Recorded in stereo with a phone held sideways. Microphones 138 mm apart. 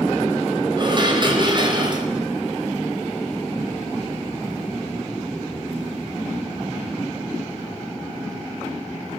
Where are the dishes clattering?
35° right (ahead or behind), 4.5 m.